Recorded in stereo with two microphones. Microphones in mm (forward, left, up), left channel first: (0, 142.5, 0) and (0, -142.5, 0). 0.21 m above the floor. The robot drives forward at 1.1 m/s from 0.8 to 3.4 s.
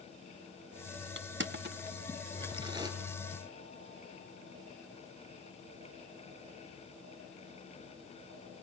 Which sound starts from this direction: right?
Crushing, at 1.2 s.